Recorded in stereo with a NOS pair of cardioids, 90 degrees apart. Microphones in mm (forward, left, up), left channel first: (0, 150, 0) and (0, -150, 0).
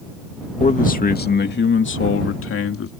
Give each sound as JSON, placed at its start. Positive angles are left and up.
{"t": 0.6, "sound": "a man speaking", "azimuth_deg": 25}